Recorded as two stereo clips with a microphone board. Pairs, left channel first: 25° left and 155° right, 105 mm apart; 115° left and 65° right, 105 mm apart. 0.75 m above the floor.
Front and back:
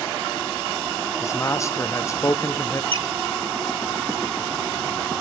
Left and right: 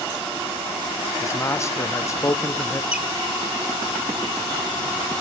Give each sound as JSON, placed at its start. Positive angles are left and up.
{"t": 1.2, "sound": "a man speaking", "azimuth_deg": 65, "distance_m": 0.7}
{"t": 2.9, "sound": "a squeak", "azimuth_deg": -145, "distance_m": 0.9}